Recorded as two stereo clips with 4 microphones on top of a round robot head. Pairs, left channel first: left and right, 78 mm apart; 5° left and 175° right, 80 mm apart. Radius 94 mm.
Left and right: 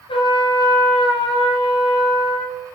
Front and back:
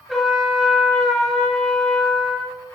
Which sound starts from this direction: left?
A trumpet, at 0.1 s.